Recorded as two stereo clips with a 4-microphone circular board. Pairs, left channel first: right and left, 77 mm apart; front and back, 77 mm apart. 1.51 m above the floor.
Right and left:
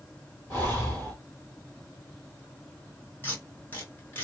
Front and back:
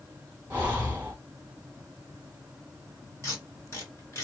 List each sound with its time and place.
0.5 s breathing: 125° right, 1.3 m
3.2 s tape being pulled: 35° right, 1.9 m